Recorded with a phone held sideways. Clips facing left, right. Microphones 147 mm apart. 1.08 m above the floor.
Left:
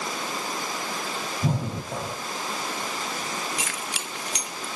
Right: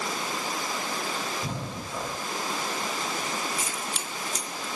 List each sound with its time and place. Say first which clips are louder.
1.4 s breathing: left 6 dB; 80° left, 6 m
3.6 s keys jangling: even; 80° left, 0.9 m